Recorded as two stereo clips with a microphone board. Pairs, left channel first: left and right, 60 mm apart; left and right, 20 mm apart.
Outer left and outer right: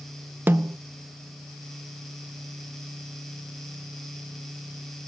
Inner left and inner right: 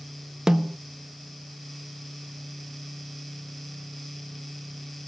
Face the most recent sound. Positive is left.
turn(degrees=-35)  # may be behind; listen again after turning